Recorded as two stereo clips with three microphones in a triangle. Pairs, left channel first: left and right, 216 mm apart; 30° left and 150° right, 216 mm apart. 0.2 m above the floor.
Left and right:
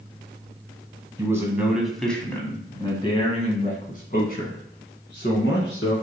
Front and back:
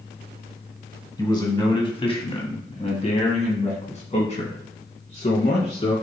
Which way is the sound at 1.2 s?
30° right.